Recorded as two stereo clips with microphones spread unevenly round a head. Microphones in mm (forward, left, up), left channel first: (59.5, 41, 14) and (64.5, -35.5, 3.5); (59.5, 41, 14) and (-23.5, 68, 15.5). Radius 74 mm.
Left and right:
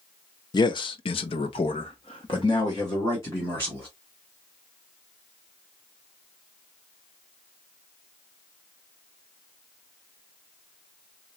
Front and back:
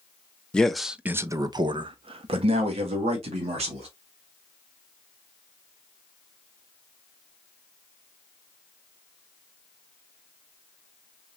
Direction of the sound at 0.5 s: 60° left.